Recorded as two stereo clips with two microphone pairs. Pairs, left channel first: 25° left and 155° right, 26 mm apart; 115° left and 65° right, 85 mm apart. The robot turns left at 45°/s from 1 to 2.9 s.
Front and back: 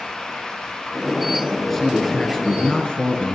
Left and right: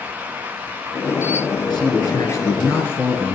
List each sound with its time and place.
1.7 s a man speaking: 110° left, 2.5 m; by 3.4 s 55° left, 2.5 m